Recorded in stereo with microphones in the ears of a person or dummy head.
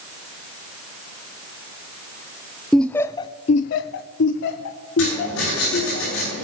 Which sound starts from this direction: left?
Writing, at 5.0 s.